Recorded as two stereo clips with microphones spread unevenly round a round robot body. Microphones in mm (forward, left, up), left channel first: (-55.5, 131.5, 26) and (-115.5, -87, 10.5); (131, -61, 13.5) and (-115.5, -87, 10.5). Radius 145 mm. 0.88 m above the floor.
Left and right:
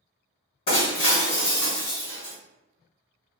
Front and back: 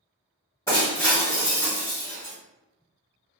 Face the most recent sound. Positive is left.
turn(degrees=85)